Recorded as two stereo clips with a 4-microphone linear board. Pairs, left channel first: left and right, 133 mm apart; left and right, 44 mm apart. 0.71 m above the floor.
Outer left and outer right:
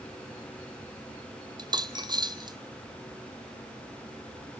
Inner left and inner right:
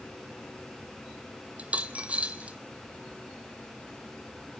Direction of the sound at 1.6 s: 35° right (ahead or behind).